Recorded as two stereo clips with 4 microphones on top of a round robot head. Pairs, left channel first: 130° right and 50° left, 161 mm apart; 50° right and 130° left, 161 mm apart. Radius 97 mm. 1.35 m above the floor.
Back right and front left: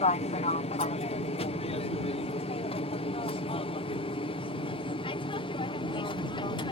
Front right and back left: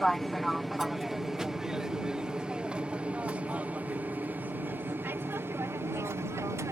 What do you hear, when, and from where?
0.0 s an aircraft: 140° right; by 6.7 s 170° right